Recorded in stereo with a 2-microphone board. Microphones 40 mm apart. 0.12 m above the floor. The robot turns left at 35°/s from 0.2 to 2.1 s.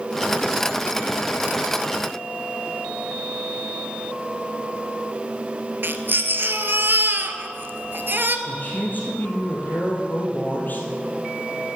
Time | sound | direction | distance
5.8 | a baby crying | 50° right (ahead or behind) | 0.8 m
8.5 | a man speaking | 45° left (ahead or behind) | 3 m